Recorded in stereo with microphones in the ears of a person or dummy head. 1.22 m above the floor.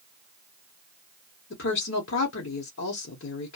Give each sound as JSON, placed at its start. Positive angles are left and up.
{"t": 1.5, "sound": "a woman speaking", "side_deg": 65, "distance_m": 0.8}